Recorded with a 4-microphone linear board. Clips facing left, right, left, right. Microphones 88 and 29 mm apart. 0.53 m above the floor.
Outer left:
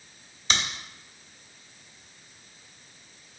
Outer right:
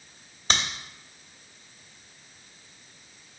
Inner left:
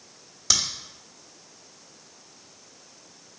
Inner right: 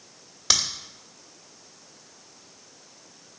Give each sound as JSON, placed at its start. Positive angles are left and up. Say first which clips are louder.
{"t": 0.5, "sound": "a crack", "louder": "outer right 1 dB, inner right 1 dB", "side_deg": -45, "distance_m": 1.4}